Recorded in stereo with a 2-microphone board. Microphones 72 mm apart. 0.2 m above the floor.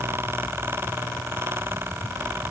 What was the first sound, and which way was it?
Only background noise.